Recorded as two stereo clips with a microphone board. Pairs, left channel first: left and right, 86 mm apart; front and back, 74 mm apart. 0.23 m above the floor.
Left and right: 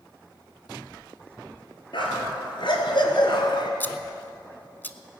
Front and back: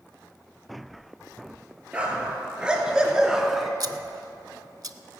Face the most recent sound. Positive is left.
turn(degrees=155)